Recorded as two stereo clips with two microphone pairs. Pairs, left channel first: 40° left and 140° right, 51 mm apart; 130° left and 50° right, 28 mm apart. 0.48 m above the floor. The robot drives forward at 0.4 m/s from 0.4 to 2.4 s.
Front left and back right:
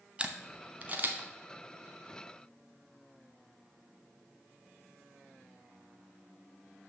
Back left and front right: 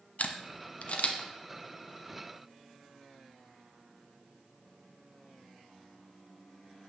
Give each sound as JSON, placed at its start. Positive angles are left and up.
{"t": 0.2, "sound": "a camera shutter", "azimuth_deg": 155, "distance_m": 0.6}